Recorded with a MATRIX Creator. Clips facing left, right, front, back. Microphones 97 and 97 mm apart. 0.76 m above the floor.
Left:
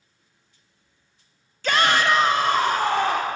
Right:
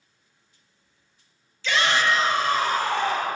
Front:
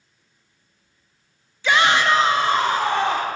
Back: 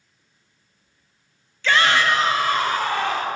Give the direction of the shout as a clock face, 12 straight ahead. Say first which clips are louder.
Left 3 dB, front 1 dB; 10 o'clock.